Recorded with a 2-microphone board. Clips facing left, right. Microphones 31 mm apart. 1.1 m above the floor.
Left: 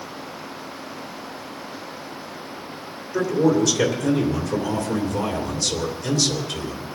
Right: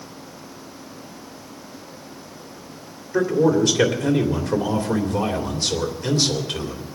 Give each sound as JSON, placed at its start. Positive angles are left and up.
{"t": 3.1, "sound": "a man speaking", "side_deg": -40, "distance_m": 3.0}